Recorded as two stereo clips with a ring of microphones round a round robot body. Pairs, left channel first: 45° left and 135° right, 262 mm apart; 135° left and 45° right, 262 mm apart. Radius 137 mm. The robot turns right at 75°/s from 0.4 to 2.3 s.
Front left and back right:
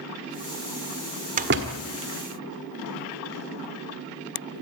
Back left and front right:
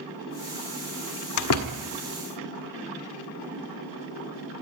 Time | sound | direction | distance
1.4 | a door slam | 160° left | 1.6 m